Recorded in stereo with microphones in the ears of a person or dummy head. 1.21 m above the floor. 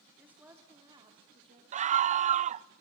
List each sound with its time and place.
0.2 s a woman speaking: 5° right (ahead or behind), 3.5 m; by 1.6 s 35° right (ahead or behind), 3.5 m
1.7 s a scream: 40° right (ahead or behind), 0.6 m